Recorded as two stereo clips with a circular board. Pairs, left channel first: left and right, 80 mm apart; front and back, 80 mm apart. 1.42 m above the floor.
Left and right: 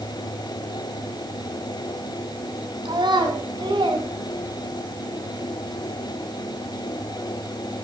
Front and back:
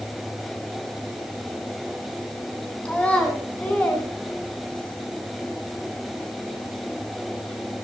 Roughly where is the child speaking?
Right.